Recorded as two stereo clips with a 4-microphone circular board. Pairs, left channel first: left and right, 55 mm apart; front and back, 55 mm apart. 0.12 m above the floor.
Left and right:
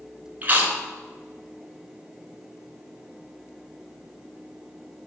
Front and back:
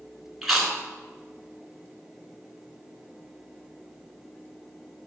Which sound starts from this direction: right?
Chewing, at 0.4 s.